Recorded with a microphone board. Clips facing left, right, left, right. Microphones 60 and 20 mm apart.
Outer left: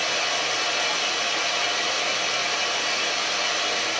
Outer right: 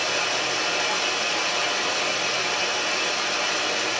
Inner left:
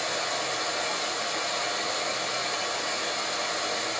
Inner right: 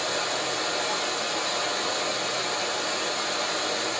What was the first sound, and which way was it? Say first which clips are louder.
Running water: even, inner right 2 dB; 30° right (ahead or behind).